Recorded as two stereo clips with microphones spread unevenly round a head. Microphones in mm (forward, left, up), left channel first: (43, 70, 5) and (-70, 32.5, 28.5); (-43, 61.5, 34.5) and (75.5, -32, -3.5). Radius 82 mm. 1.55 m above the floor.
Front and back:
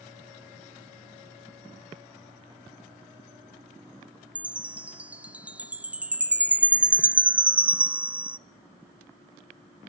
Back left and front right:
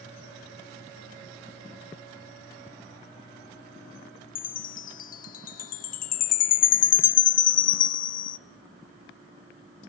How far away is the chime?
About 0.5 m.